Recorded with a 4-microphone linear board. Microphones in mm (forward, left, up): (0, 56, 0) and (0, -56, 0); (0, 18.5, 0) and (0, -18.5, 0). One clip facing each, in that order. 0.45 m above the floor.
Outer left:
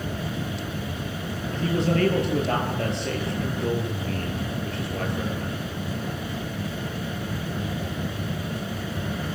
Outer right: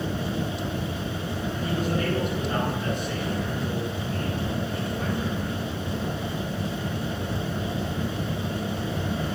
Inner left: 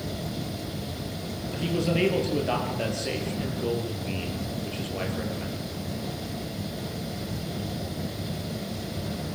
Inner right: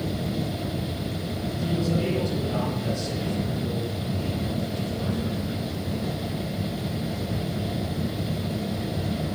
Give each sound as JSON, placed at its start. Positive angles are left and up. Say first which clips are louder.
{"t": 1.5, "sound": "a man speaking", "louder": "outer left 5 dB, inner left 1 dB", "side_deg": 80, "distance_m": 10.0}